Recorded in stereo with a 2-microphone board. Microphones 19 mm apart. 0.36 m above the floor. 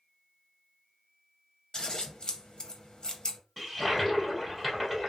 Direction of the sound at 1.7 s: 45° left (ahead or behind).